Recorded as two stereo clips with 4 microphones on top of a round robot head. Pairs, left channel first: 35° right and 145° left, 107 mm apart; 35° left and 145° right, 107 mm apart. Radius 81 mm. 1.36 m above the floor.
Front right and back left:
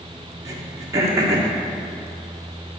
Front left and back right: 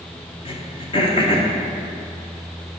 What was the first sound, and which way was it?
Throat clearing, 80° left.